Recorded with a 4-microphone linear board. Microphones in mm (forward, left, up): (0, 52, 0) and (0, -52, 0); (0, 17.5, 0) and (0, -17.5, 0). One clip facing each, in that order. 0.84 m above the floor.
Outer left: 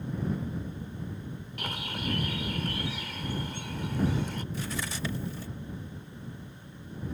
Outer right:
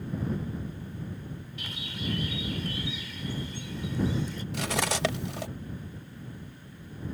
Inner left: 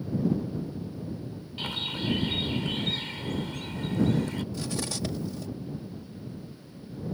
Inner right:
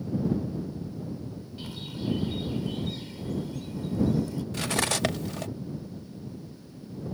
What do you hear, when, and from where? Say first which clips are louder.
1.6 s a bird: outer left 4 dB, inner left 6 dB; 60° left (ahead or behind)
4.5 s cutlery clinking: outer right 6 dB, inner right 5 dB; 70° right (ahead or behind)